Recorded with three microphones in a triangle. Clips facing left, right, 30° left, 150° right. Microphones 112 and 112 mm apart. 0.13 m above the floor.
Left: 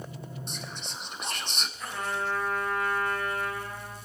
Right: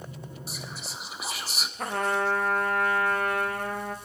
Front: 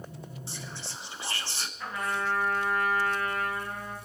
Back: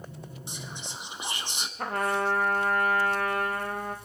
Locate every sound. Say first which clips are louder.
0.5 s whispering: even, back 2 dB; 165° right, 1.2 m
1.8 s a trumpet: right 6 dB, back 5 dB; 115° right, 2.5 m